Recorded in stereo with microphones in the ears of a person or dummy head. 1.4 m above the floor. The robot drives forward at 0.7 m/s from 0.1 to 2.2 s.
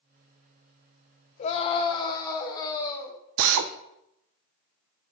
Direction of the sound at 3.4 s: 65° right (ahead or behind).